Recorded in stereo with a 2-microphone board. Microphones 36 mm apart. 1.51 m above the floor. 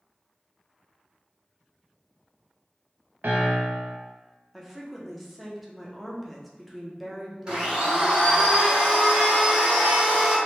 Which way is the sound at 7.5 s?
25° right (ahead or behind).